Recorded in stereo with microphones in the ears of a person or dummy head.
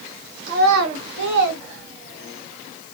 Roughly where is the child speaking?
Right.